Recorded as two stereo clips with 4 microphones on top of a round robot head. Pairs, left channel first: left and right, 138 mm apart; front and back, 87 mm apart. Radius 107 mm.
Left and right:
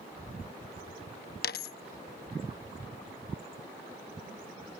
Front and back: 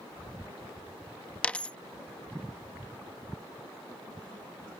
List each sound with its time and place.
1.4 s a dropped coin: 75° left